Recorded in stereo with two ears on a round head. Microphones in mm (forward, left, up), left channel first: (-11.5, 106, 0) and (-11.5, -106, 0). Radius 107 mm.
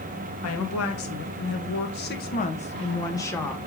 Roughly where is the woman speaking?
Left.